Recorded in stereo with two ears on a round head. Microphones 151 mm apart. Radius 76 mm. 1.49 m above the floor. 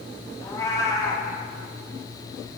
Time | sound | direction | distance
0.4 | a cat meowing | 20° left (ahead or behind) | 1.1 m